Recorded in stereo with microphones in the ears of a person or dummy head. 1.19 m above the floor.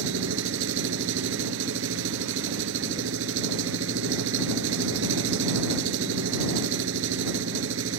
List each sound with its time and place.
0.0 s an engine running: 75° right (ahead or behind)